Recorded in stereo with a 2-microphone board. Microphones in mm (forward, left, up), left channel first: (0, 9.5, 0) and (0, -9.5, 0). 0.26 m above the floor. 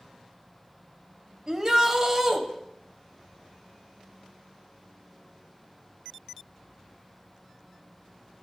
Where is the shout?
25° right (ahead or behind), 1.0 m.